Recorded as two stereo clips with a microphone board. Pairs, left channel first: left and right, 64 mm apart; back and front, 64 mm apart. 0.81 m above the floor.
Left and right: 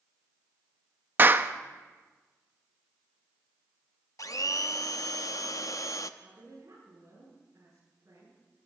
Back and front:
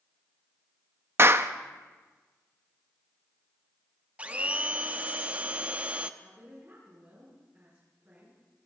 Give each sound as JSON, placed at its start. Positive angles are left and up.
{"t": 1.2, "sound": "a clap", "azimuth_deg": -40, "distance_m": 0.5}
{"t": 4.2, "sound": "a blender", "azimuth_deg": 65, "distance_m": 0.6}
{"t": 6.2, "sound": "a woman speaking", "azimuth_deg": -50, "distance_m": 7.5}